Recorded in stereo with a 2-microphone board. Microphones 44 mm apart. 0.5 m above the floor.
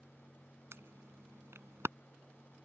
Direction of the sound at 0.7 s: 75° right (ahead or behind).